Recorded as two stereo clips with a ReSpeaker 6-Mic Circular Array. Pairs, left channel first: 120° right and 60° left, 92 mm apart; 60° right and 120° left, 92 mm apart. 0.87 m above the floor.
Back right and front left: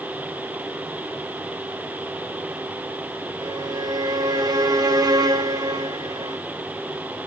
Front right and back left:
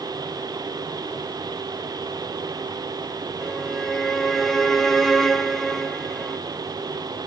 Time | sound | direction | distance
3.4 | a violin | 25° left | 0.9 m